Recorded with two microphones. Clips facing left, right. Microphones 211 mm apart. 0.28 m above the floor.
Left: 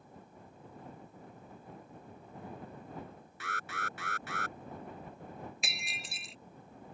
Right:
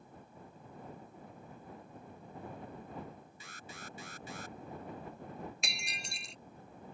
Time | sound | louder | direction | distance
3.4 | an alarm | left 10 dB | 70° left (ahead or behind) | ?
5.6 | breaking glass | even | centre (ahead or behind) | ?